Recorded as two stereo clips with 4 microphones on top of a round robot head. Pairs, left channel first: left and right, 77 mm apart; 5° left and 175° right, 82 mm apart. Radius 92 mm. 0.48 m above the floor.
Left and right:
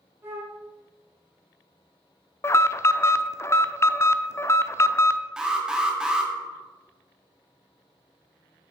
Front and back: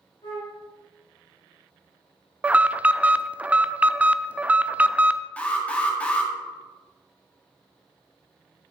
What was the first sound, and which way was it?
A flute, 25° right.